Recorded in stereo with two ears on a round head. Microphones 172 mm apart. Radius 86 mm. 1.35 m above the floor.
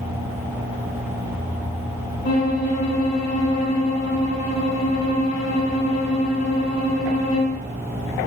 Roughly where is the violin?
Left.